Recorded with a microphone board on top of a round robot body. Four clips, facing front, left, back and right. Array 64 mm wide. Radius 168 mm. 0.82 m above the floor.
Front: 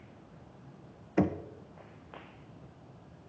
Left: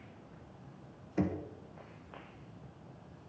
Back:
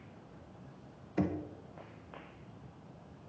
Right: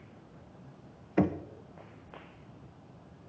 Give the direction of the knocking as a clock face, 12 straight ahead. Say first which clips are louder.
Right 6 dB, front 5 dB; 2 o'clock.